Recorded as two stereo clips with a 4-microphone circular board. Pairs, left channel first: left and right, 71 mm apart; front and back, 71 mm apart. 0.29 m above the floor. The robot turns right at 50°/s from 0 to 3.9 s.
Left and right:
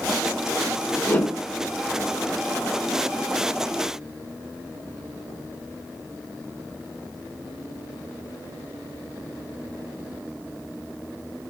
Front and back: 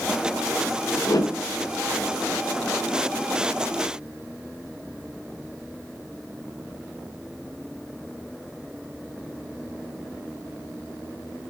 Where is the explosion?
I don't hear an explosion.